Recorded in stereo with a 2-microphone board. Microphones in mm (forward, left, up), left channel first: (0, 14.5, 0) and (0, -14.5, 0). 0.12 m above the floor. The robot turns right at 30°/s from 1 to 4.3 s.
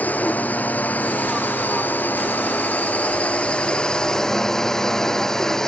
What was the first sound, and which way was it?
A drone, 60° left.